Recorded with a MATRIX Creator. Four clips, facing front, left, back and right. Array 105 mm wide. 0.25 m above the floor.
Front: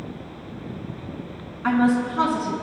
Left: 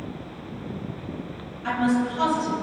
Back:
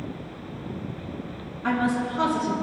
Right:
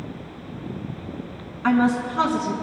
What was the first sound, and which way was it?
A woman speaking, 60° right.